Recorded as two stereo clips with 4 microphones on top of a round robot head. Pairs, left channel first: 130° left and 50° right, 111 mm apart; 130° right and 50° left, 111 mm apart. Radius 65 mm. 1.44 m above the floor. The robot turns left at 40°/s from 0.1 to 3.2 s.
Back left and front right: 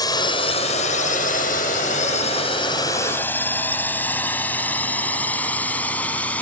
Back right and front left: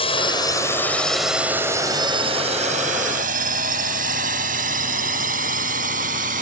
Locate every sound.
0.0 s a drone: 175° right; by 6.4 s 50° left